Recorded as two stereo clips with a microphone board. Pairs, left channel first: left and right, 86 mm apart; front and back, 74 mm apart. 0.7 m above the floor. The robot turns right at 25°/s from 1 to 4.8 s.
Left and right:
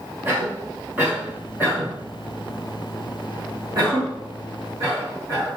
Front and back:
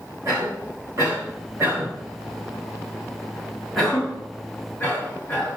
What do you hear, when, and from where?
0.2 s a cough: 160° right, 1.8 m; by 5.5 s 65° right, 1.8 m